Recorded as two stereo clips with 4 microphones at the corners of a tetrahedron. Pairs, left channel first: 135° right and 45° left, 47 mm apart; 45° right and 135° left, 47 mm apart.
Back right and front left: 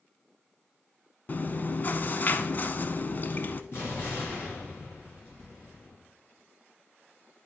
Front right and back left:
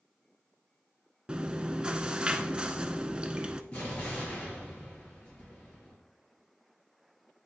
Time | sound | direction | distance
1.3 | chewing | 165° right | 0.5 m
3.7 | an explosion | 105° right | 3 m